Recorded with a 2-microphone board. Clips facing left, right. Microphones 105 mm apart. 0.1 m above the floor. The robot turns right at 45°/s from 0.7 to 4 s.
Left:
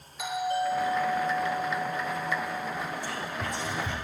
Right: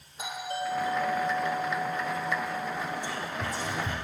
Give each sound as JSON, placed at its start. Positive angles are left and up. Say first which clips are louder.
{"t": 0.2, "sound": "a doorbell", "louder": "left 5 dB", "azimuth_deg": -50, "distance_m": 3.0}
{"t": 3.0, "sound": "whispering", "louder": "even", "side_deg": 15, "distance_m": 1.4}